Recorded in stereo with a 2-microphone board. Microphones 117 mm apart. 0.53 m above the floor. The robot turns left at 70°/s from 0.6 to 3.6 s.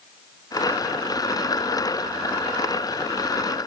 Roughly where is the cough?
No cough in this recording.